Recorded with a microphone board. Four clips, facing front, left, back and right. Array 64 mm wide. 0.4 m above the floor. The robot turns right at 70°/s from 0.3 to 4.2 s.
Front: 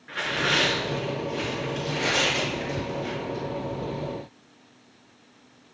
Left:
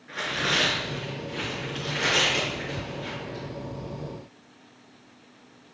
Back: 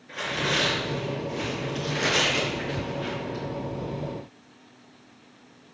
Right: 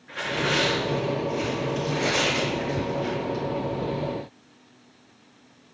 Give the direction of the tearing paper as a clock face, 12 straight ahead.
12 o'clock.